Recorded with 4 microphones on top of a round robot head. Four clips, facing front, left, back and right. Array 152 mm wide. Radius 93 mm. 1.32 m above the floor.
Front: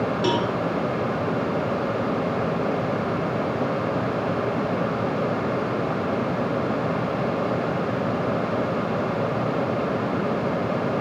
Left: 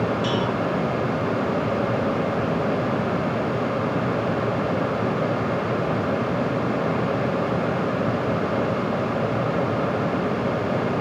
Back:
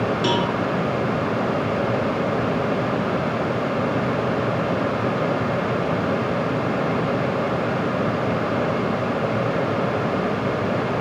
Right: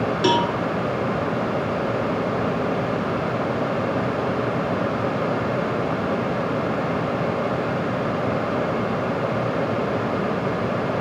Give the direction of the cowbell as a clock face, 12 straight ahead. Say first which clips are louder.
Right 4 dB, even; 3 o'clock.